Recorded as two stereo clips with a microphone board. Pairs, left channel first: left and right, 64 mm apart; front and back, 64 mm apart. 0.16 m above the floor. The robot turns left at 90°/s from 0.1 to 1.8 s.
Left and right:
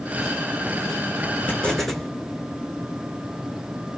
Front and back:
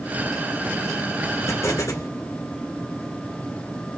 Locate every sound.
1.5 s an explosion: 35° left, 1.5 m; by 2.1 s 5° left, 1.5 m